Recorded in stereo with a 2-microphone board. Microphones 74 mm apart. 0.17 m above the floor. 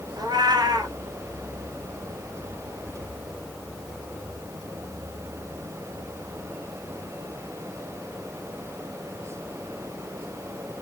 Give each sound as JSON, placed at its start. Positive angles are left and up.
{"t": 0.2, "sound": "a cat meowing", "side_deg": -70, "distance_m": 0.6}